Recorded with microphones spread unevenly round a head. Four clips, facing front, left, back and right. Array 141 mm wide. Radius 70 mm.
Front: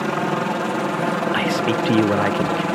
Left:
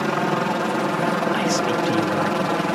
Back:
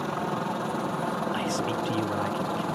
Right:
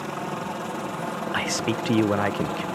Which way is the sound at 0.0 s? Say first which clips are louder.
Left 9 dB, front 8 dB; 50° left.